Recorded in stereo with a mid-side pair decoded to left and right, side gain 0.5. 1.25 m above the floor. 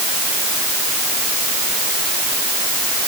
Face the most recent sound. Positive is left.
No sound to turn to.